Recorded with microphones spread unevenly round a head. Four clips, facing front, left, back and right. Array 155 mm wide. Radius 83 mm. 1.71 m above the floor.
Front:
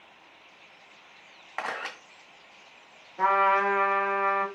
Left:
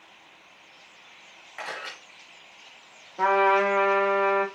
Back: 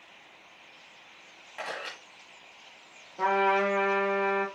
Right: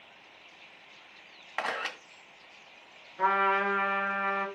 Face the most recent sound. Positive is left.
turn(degrees=65)